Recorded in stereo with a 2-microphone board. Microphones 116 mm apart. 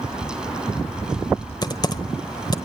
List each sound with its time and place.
1.6 s typing on a keyboard: 35° left (ahead or behind), 1.2 m